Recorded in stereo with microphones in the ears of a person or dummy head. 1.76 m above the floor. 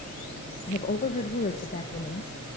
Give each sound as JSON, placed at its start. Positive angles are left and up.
{"t": 0.7, "sound": "a woman speaking", "side_deg": 40, "distance_m": 1.6}